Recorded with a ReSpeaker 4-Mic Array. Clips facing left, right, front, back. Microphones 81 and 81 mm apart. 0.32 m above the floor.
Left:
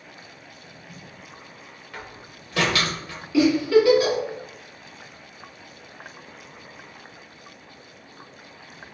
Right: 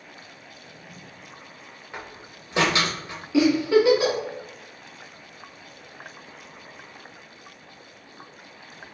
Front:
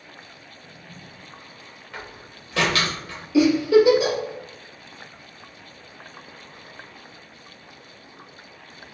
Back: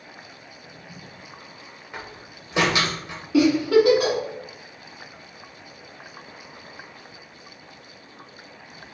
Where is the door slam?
130° right, 0.6 m.